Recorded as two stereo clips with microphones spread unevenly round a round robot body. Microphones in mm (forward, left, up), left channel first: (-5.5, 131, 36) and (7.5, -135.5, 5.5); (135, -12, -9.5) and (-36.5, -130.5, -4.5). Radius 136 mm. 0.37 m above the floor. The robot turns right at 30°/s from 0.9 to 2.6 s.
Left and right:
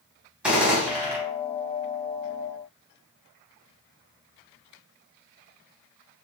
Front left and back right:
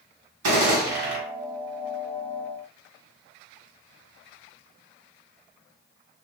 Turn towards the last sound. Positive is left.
turn(degrees=-120)